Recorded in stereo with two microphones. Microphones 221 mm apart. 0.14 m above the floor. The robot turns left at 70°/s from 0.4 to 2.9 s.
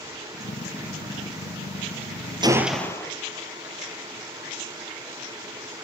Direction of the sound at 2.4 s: 160° right.